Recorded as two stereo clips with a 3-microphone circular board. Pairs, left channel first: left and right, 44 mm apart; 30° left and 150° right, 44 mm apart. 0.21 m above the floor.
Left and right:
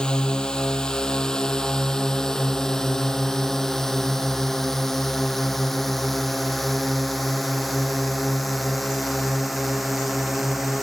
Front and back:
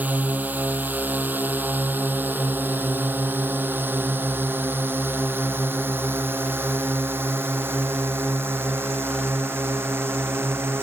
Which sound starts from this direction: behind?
A drone, at 0.0 s.